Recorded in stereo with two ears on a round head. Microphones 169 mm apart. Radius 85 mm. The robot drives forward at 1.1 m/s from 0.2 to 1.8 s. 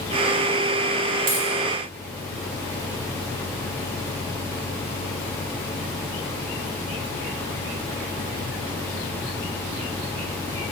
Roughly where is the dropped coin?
Right.